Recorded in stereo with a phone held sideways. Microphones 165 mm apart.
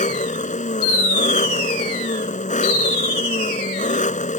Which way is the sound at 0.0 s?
50° left (ahead or behind).